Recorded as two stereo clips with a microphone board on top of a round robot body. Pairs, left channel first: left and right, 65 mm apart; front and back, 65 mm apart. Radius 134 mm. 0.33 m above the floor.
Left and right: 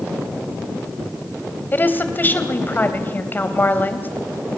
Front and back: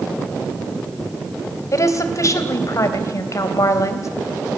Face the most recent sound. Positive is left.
turn(degrees=35)